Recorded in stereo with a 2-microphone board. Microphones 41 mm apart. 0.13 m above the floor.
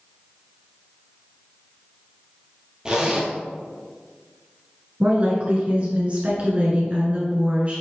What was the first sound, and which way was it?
A zipper, 20° right (ahead or behind).